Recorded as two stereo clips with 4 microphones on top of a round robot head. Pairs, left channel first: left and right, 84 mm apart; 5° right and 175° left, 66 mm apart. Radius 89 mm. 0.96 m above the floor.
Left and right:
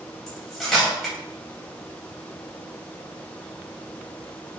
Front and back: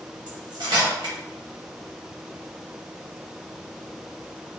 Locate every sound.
0.3 s cutlery clinking: 175° left, 1.3 m